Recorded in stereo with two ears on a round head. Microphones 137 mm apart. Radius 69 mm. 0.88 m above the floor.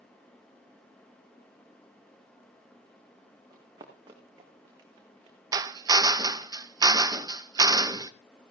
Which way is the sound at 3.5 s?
25° right (ahead or behind).